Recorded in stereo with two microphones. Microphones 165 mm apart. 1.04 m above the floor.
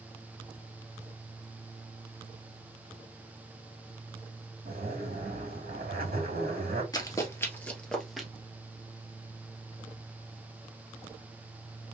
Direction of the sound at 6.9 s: 25° left (ahead or behind).